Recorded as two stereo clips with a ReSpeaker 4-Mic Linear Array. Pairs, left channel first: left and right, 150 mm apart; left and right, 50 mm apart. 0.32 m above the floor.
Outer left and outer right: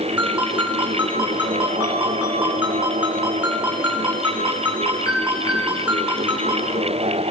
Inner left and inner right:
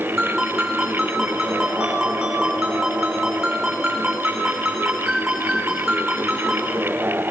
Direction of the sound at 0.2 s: 10° right (ahead or behind).